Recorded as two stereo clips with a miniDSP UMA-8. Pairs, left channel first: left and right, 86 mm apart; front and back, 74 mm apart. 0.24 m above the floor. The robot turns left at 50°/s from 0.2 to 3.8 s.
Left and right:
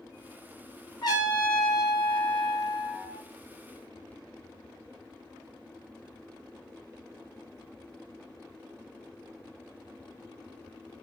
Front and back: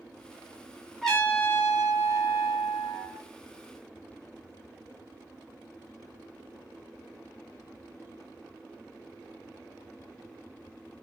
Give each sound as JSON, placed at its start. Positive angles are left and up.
{"t": 1.0, "sound": "a trumpet", "azimuth_deg": 85, "distance_m": 0.9}